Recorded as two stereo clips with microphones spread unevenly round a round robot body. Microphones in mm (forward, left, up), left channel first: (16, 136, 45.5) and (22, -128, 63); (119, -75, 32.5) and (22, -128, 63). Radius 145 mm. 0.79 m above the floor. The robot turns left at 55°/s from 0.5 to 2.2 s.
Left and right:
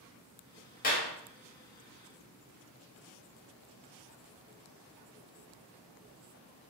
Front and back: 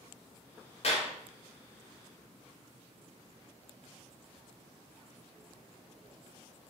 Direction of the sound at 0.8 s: 35° left.